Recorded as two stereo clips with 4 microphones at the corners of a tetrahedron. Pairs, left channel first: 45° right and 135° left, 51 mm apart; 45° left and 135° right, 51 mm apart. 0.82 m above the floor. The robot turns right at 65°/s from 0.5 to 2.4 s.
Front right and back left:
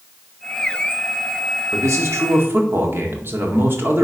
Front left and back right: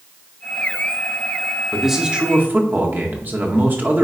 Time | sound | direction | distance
1.7 | a man speaking | 130° left | 1.9 m